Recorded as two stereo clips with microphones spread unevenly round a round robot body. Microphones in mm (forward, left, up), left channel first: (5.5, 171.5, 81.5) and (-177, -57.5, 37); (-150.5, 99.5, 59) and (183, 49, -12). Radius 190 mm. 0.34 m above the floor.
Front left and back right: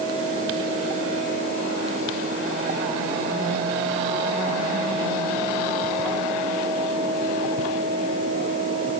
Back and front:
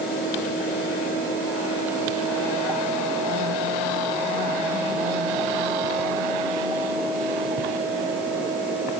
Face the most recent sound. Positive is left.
No sound to turn to.